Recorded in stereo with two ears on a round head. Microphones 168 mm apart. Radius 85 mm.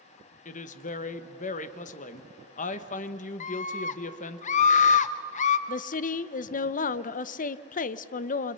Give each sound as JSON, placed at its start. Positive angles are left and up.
{"t": 0.5, "sound": "a woman speaking", "side_deg": 40, "distance_m": 1.2}
{"t": 3.4, "sound": "a scream", "side_deg": 40, "distance_m": 0.6}
{"t": 5.7, "sound": "a woman speaking", "side_deg": 45, "distance_m": 0.7}